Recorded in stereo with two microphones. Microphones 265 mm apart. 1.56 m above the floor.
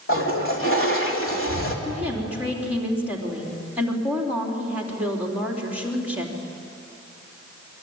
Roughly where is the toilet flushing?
Left.